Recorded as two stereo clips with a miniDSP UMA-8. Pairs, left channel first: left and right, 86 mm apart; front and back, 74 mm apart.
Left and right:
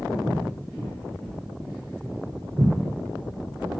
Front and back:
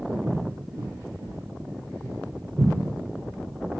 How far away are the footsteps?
About 1.3 m.